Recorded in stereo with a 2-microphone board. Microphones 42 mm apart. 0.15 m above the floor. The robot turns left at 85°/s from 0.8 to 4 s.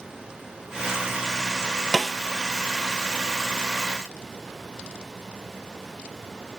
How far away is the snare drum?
About 0.9 m.